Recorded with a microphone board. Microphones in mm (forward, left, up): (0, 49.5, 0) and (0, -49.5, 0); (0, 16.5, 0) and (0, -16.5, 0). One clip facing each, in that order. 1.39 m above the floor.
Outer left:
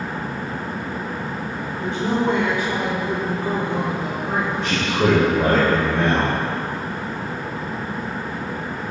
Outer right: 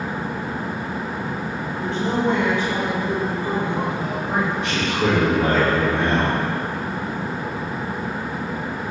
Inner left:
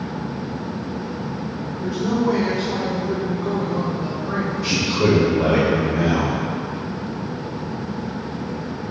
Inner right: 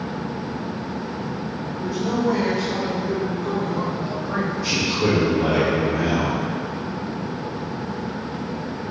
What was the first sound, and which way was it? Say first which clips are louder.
A woman speaking: outer left 1 dB, inner left 2 dB; 25° left (ahead or behind).